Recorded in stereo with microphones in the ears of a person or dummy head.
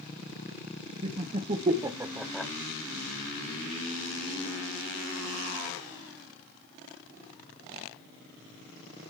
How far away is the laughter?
About 1.0 m.